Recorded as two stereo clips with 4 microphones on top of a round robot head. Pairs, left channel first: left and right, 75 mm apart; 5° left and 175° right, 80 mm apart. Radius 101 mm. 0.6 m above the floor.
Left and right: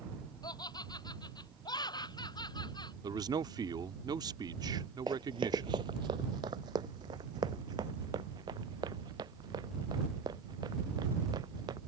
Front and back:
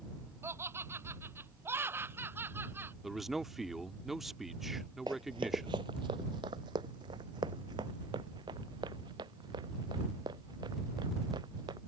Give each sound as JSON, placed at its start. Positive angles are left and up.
{"t": 0.4, "sound": "laughter", "azimuth_deg": 130}
{"t": 3.0, "sound": "a man speaking", "azimuth_deg": -85}
{"t": 5.1, "sound": "running footsteps", "azimuth_deg": -130}